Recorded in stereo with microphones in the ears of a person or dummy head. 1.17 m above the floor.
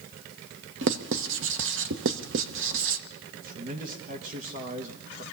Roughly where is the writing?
Right.